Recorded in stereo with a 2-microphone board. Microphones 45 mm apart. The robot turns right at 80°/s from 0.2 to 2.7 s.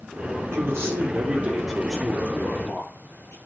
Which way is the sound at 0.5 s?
100° right.